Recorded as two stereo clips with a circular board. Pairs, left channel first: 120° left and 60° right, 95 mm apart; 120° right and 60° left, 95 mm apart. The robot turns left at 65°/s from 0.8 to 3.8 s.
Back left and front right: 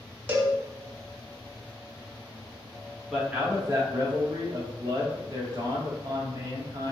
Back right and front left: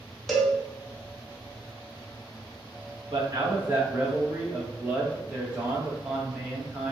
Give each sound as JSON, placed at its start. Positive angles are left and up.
{"t": 0.3, "sound": "a cowbell", "azimuth_deg": -35, "distance_m": 0.6}
{"t": 3.1, "sound": "a man speaking", "azimuth_deg": 25, "distance_m": 0.9}